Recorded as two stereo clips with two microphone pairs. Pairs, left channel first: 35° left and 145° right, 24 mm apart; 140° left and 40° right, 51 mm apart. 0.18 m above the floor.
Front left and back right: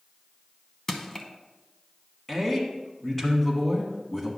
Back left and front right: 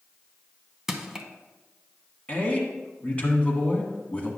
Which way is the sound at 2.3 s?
105° left.